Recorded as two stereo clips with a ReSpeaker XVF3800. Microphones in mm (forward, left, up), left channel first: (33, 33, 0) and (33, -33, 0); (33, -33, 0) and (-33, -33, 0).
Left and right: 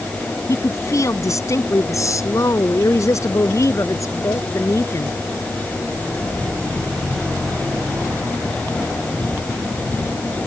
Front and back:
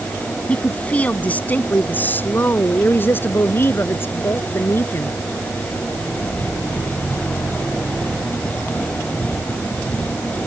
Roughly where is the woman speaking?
Left.